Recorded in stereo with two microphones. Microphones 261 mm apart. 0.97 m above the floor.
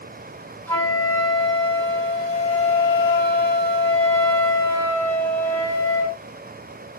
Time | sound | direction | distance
0.7 | a flute | 10° left (ahead or behind) | 1.6 m